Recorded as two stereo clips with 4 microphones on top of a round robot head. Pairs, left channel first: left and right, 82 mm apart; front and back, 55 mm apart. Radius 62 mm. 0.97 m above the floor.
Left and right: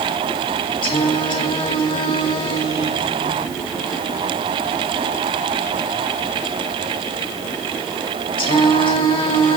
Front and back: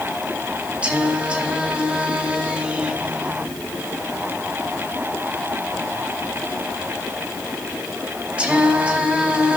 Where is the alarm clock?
No alarm clock in this recording.